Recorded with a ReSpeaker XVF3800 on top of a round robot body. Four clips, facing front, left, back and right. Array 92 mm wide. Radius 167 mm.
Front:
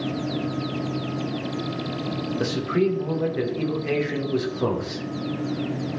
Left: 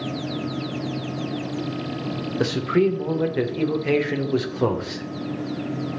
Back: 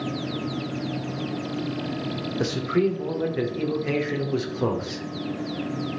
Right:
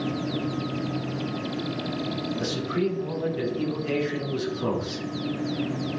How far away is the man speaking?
About 2.5 m.